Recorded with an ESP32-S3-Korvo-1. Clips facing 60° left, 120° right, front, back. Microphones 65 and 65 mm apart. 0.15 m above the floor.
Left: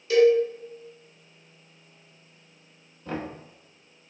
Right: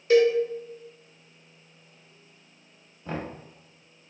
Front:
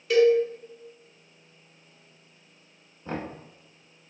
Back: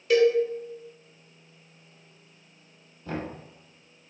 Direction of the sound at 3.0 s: 40° right.